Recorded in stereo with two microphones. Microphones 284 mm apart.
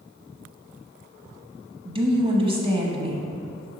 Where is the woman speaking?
20° right (ahead or behind), 1.0 m.